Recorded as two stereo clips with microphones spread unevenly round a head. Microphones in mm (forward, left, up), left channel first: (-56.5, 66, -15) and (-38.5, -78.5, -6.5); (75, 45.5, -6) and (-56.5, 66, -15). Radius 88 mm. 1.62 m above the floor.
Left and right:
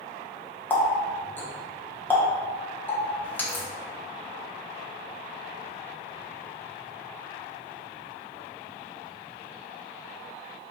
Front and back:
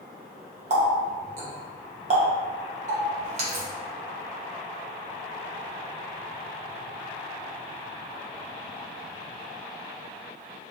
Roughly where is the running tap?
Behind.